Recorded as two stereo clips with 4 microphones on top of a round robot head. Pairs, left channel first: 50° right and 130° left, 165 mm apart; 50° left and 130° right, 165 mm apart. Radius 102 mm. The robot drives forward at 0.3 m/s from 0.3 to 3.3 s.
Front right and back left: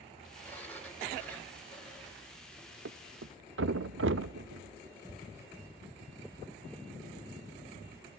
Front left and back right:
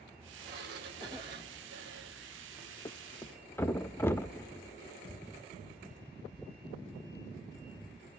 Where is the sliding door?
130° right, 3 m; by 2.8 s 140° right, 3.5 m.